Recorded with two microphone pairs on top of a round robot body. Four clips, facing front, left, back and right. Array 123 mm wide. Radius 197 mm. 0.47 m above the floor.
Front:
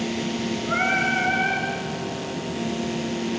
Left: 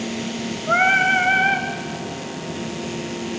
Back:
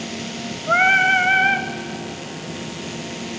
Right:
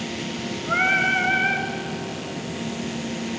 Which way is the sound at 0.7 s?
155° left.